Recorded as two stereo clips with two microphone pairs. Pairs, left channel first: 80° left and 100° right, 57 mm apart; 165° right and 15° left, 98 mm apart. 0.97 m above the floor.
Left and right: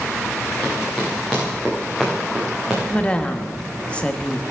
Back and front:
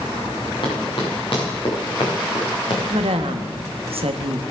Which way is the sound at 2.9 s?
10° left.